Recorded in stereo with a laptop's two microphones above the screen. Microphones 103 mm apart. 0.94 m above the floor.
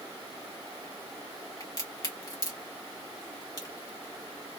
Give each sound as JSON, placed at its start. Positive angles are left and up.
{"t": 1.6, "sound": "a crack", "side_deg": 35, "distance_m": 1.2}